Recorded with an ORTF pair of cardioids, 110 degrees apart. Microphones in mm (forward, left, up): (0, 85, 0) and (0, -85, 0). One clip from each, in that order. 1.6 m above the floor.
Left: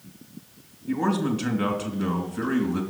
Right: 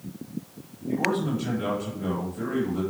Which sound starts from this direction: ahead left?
A man speaking, at 0.9 s.